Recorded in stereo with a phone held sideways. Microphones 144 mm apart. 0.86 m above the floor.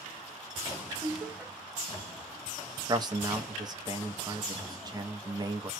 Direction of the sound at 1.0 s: 15° right (ahead or behind).